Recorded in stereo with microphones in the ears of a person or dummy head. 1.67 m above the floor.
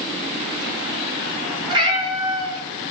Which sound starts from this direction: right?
A cat meowing, at 1.7 s.